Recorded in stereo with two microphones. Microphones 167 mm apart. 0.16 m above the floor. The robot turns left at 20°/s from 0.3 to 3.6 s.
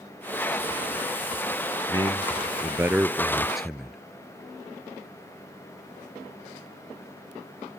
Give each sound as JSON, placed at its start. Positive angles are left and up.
{"t": 1.9, "sound": "a man speaking", "azimuth_deg": -145}